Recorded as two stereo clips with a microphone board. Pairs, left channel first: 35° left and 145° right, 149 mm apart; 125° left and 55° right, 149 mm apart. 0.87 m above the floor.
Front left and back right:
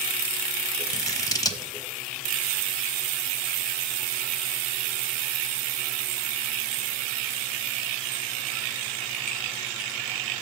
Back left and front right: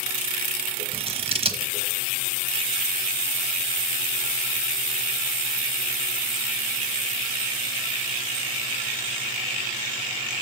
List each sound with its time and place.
0.9 s scissors: 25° right, 1.0 m